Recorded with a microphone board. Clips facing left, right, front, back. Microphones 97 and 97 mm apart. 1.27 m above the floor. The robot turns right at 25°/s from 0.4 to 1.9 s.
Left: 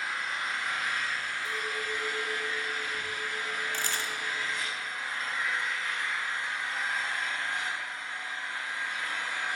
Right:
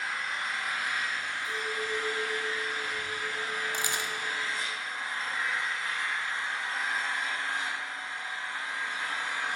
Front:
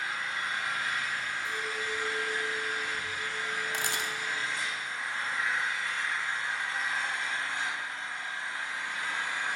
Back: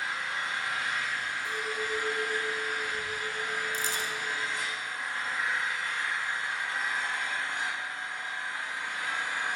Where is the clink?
85° left, 1.8 m; by 4.7 s 95° left, 1.8 m.